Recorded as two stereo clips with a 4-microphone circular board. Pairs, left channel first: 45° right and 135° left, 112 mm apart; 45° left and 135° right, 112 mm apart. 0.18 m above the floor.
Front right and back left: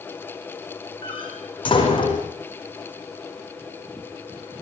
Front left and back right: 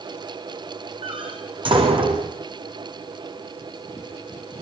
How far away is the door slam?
About 7.5 m.